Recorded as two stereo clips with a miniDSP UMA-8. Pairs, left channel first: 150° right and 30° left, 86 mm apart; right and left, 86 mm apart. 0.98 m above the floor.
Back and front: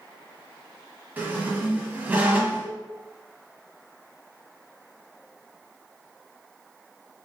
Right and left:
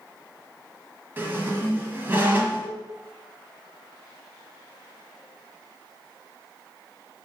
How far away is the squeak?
About 0.9 m.